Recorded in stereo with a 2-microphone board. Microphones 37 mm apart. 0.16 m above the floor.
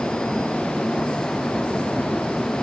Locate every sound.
Only background noise.